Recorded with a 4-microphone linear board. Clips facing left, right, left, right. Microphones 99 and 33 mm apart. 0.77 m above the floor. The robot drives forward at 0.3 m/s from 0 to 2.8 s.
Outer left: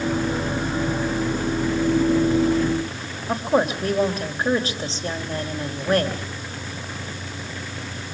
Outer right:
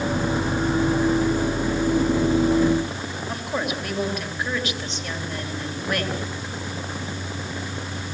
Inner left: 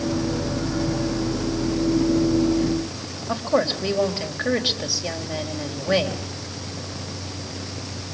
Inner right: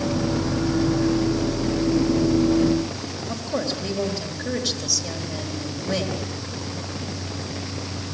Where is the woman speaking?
35° left (ahead or behind), 3.5 m.